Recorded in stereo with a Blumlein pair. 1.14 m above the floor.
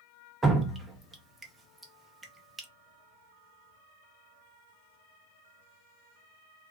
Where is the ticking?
I don't hear ticking.